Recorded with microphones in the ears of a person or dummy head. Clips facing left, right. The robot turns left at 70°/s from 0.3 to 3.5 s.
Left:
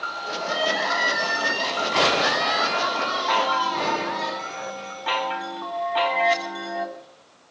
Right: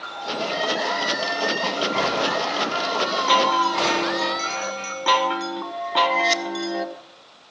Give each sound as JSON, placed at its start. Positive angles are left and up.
{"t": 0.4, "sound": "crying", "azimuth_deg": 155, "distance_m": 8.5}
{"t": 3.3, "sound": "a chime", "side_deg": -40, "distance_m": 1.2}